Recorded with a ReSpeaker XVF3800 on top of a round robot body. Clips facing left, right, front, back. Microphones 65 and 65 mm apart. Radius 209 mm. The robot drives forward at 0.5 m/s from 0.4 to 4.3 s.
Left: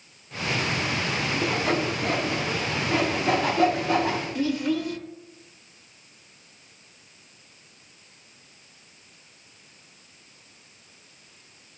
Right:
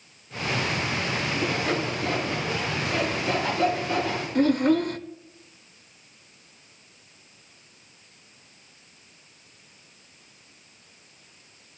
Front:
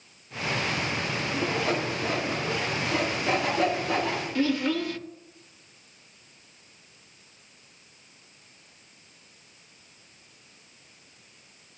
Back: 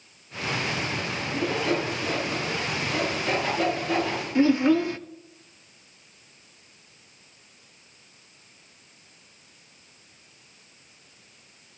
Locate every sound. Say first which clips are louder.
1.4 s sawing: left 2 dB, back 3 dB; 55° left, 2.5 m; by 4.2 s 90° left, 2 m
4.3 s a child speaking: right 8 dB, back 7 dB; 115° right, 0.6 m